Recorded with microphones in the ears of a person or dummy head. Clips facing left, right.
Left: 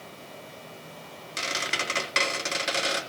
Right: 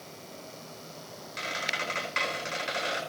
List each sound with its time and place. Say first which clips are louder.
1.4 s a squeak: left 3 dB; 55° left (ahead or behind), 3.5 m